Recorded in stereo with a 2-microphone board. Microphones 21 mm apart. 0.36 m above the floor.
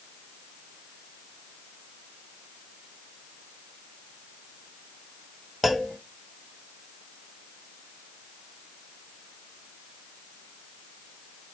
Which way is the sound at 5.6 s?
5° left (ahead or behind).